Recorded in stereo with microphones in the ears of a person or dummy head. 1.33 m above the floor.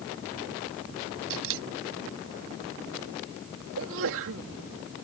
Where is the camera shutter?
75° right (ahead or behind).